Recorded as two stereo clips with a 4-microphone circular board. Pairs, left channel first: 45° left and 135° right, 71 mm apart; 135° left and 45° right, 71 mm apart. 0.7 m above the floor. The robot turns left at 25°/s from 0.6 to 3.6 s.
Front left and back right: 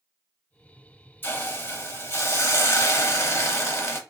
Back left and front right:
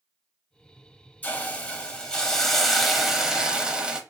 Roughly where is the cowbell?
I don't hear a cowbell.